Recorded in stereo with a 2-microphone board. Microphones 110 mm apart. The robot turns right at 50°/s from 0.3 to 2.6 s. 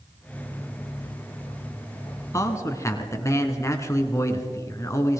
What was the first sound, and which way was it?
A man speaking, 30° left (ahead or behind).